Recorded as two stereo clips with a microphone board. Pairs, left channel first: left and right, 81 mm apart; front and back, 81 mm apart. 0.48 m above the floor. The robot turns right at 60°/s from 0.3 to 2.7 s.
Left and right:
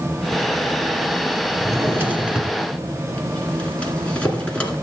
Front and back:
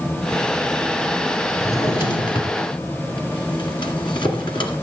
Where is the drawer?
50° right, 1.9 m; by 4.8 s 15° left, 1.9 m.